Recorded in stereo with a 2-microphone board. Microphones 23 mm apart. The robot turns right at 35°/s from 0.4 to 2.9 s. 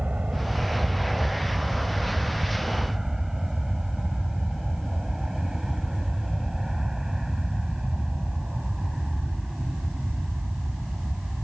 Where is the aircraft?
65° right (ahead or behind); by 11.4 s 20° right (ahead or behind).